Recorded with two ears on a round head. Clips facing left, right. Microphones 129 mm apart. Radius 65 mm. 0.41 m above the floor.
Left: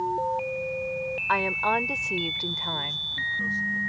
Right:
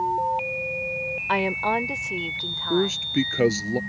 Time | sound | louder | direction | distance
1.3 | a woman speaking | right 3 dB | 25° right (ahead or behind) | ?
2.7 | a man speaking | right 14 dB | 80° right | ?